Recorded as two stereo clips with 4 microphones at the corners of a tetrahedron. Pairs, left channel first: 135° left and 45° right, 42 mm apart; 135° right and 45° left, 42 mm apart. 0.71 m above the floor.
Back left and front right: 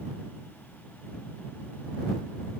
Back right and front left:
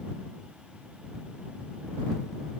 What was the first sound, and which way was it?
Only background noise.